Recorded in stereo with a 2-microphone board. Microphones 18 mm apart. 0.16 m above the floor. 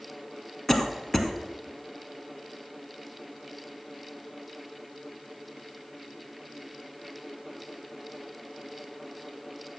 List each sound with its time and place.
0.7 s a cough: 20° left (ahead or behind), 1.4 m